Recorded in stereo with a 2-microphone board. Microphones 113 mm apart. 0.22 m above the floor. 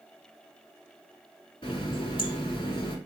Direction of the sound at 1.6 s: 50° left (ahead or behind).